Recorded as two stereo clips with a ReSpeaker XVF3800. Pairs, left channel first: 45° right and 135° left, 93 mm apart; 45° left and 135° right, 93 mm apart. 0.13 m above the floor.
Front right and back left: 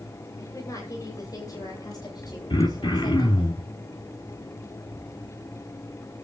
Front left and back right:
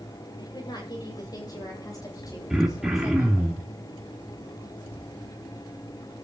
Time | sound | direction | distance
0.4 | a woman speaking | 10° left | 9 m
2.5 | throat clearing | 55° right | 3.5 m